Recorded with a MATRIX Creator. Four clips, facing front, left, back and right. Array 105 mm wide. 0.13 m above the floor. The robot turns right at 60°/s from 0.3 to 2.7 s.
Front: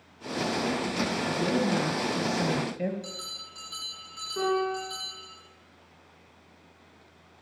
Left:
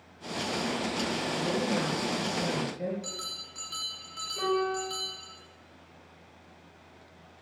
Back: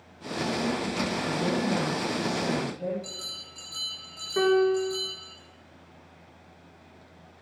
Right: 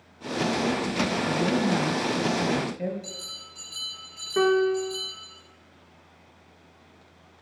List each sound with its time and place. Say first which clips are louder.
1.3 s a woman speaking: right 5 dB, front 1 dB; 95° right, 2 m; by 2.9 s 10° right, 2 m
3.0 s a bell: even, front 1 dB; 70° left, 7 m
4.4 s a piano: right 7 dB, back 6 dB; 115° right, 4 m